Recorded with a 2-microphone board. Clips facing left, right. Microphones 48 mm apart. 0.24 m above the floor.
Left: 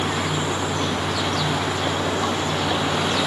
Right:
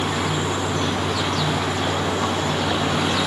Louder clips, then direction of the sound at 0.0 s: Right 1 dB; 5° right (ahead or behind).